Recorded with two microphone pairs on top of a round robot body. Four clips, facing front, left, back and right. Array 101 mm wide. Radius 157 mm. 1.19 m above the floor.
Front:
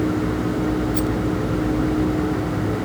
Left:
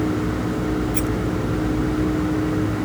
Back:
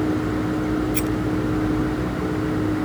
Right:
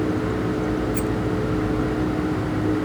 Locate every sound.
0.9 s a rattle: 165° left